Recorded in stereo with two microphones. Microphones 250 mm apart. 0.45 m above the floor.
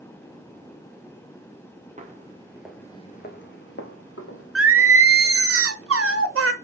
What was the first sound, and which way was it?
Footsteps, 30° right (ahead or behind).